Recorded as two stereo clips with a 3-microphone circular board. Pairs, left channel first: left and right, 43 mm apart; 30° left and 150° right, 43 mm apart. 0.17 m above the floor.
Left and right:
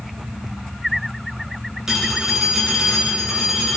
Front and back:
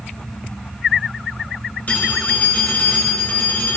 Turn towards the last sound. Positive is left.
turn(degrees=-15)